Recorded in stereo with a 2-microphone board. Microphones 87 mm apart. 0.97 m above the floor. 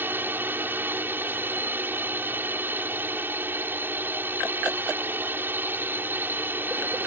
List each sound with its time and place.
0.0 s a drone: 25° right (ahead or behind)